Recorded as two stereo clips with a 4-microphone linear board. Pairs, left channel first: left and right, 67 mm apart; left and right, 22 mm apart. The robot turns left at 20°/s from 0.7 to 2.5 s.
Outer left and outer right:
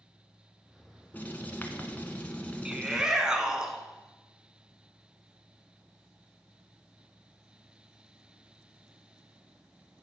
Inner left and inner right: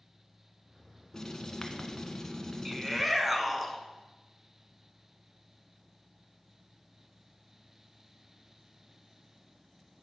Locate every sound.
1.1 s writing: 25° left (ahead or behind), 1.0 m; by 3.0 s 20° left (ahead or behind), 1.0 m
2.6 s a shout: 10° right (ahead or behind), 1.1 m